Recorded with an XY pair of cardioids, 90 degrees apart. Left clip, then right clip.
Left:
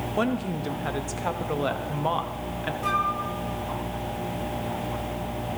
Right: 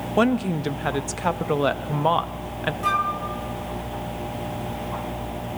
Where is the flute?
30° right, 2.5 m.